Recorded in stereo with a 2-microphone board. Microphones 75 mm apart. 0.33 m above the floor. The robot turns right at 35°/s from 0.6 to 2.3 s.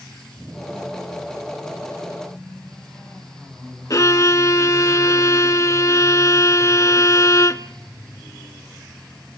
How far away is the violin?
About 0.7 m.